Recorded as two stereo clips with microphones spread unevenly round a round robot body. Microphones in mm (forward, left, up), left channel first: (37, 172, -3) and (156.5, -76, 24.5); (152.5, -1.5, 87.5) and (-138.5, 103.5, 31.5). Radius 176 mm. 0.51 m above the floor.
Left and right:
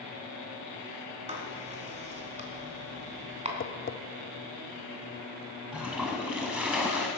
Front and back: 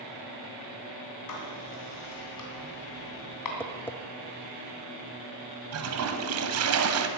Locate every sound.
1.3 s writing: 5° left, 3 m
3.6 s tapping: 70° left, 0.6 m
5.7 s a toilet flushing: 150° right, 1.0 m